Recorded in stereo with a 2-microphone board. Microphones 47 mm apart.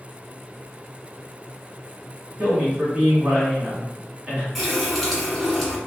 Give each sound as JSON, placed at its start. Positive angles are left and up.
{"t": 2.4, "sound": "a man speaking", "side_deg": -25, "distance_m": 1.2}
{"t": 4.5, "sound": "a running tap", "side_deg": 5, "distance_m": 1.3}